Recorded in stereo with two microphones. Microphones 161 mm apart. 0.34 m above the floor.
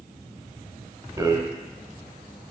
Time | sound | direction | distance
1.2 | a rattle | 20° right (ahead or behind) | 1.6 m